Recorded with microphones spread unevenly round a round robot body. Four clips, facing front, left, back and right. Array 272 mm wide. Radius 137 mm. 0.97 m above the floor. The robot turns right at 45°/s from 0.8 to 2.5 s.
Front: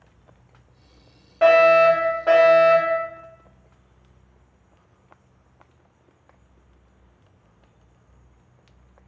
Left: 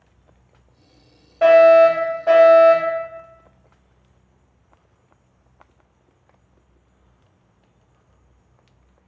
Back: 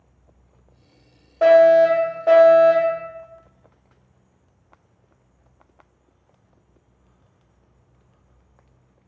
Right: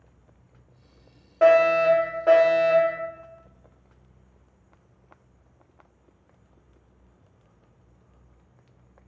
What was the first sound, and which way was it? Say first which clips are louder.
A fire alarm: left 7 dB, back 2 dB; 110° right.